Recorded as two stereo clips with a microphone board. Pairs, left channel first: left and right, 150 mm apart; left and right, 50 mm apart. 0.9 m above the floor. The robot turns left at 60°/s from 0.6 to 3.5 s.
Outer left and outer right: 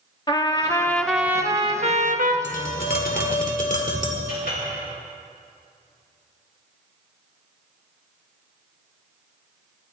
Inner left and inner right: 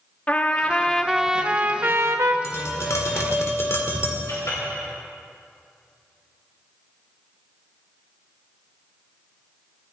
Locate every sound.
0.3 s a trumpet: 30° left, 0.9 m; by 2.3 s 75° right, 0.9 m
2.4 s tapping: 120° left, 1.9 m; by 4.2 s 60° left, 1.9 m
4.3 s a clink: 85° left, 3.5 m